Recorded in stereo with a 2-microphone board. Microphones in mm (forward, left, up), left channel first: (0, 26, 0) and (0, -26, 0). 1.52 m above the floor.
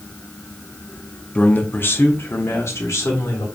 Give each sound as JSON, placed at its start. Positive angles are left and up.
{"t": 1.4, "sound": "a man speaking", "side_deg": 20, "distance_m": 0.6}